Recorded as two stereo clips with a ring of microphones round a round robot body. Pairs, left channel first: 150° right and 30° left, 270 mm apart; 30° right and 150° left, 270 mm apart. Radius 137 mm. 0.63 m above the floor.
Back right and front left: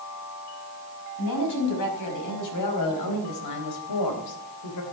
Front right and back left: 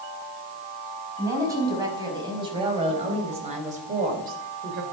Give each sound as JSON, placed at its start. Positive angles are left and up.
{"t": 1.2, "sound": "a woman speaking", "azimuth_deg": -130, "distance_m": 5.5}